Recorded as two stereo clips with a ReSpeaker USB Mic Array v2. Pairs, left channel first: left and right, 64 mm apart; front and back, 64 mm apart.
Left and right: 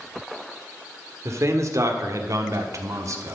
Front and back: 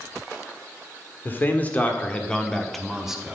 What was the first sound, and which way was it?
A man speaking, 55° right.